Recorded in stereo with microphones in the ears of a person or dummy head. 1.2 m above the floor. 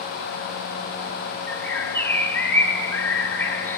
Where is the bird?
10° left (ahead or behind), 0.6 m.